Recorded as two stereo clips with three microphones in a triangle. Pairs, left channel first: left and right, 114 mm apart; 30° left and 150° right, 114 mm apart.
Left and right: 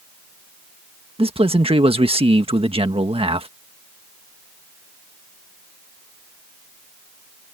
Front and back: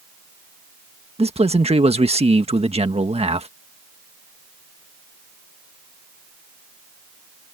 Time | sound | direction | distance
1.2 | a man speaking | 125° right | ?